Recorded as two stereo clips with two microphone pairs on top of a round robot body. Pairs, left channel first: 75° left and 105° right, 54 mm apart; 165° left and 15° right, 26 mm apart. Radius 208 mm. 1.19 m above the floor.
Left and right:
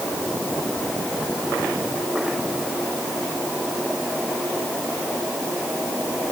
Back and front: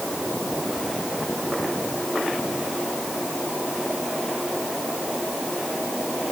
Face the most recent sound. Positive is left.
No sound to turn to.